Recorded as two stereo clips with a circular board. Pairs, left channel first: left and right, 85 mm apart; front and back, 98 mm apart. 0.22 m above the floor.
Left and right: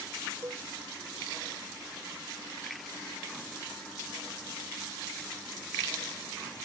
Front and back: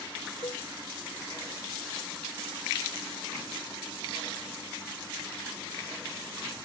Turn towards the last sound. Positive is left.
turn(degrees=-40)